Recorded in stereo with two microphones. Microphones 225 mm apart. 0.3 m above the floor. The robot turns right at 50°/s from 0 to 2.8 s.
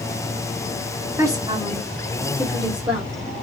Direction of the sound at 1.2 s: 15° right (ahead or behind).